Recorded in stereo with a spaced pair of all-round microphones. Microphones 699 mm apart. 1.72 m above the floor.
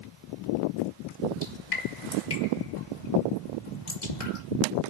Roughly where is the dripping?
Left.